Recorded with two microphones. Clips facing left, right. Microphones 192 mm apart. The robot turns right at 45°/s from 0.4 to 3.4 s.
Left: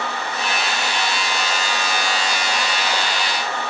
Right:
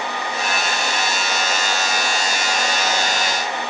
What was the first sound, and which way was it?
Only background noise.